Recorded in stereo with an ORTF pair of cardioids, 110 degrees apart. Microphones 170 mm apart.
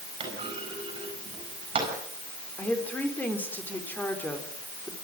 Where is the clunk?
30° right, 7.5 m.